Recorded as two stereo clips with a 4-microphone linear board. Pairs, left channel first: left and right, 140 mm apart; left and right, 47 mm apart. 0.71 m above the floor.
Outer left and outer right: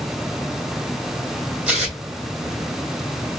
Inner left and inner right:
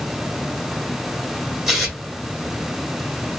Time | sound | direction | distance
1.7 | tearing paper | 5° right (ahead or behind) | 1.3 m